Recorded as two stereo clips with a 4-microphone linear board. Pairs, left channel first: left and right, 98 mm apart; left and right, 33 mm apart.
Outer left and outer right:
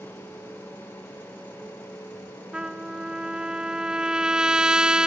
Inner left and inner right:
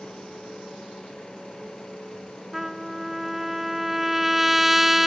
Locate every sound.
2.5 s a trumpet: 10° right (ahead or behind), 0.5 m